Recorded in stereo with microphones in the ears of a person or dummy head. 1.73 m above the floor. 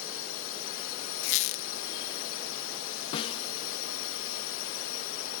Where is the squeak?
50° left (ahead or behind).